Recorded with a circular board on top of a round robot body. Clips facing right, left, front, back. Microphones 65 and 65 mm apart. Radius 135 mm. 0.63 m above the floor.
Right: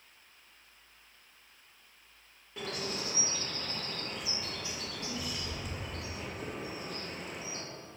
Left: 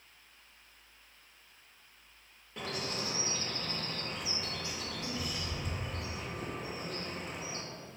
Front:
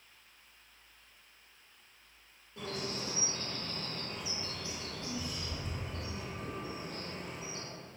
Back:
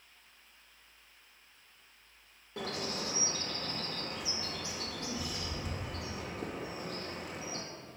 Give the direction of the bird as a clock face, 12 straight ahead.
6 o'clock.